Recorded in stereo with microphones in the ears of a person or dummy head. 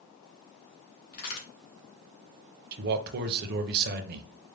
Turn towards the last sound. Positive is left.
turn(degrees=-55)  # may be behind; listen again after turning